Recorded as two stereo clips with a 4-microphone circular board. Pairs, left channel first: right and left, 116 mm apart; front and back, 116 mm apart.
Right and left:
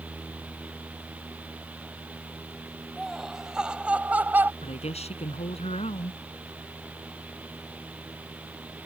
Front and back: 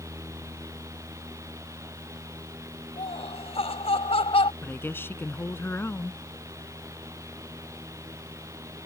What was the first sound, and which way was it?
Laughter, straight ahead.